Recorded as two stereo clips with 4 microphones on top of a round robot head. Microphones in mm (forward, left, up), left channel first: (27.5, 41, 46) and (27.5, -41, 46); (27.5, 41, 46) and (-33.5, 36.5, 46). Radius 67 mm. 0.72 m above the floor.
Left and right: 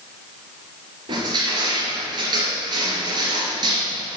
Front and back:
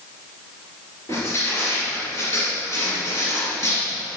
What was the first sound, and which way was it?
Crushing, 60° right.